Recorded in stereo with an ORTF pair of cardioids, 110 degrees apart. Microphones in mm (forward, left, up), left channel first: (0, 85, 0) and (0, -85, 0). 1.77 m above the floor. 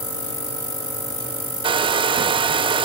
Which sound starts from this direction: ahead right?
A hair dryer, at 1.6 s.